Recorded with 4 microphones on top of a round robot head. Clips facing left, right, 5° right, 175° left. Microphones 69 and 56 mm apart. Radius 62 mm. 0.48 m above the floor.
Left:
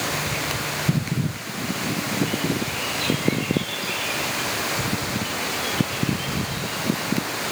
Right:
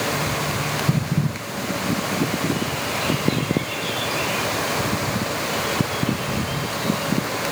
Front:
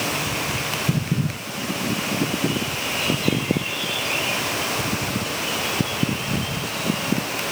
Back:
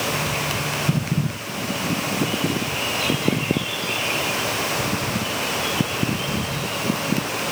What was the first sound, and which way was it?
Only background noise.